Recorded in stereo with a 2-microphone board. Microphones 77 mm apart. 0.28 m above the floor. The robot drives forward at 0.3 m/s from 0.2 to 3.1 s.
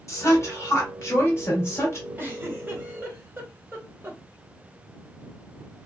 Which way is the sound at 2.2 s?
30° right (ahead or behind).